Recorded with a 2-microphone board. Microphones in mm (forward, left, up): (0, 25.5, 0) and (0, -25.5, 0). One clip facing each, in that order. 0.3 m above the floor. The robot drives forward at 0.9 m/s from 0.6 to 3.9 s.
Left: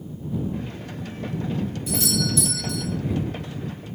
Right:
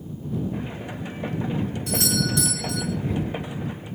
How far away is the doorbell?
About 6.5 m.